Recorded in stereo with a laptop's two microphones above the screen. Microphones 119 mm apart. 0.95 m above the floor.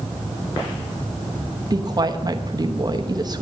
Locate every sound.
1.7 s a woman speaking: 35° right (ahead or behind), 1.0 m